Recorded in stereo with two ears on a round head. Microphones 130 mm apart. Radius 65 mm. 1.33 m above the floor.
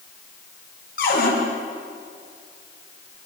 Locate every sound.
1.0 s a cupboard door: 75° left (ahead or behind), 8.5 m